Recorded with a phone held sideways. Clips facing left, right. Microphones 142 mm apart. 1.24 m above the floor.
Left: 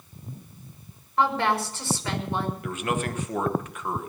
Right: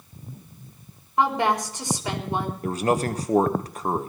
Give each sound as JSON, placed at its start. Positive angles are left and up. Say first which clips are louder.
{"t": 1.2, "sound": "a woman speaking", "louder": "right 2 dB", "side_deg": -15, "distance_m": 4.0}
{"t": 2.6, "sound": "a man speaking", "louder": "right 5 dB", "side_deg": -35, "distance_m": 1.1}